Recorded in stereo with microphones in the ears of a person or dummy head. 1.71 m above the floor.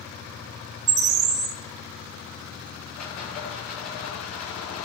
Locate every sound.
0.9 s a bird: 30° right (ahead or behind), 0.7 m
3.0 s a rattle: 50° left (ahead or behind), 5.5 m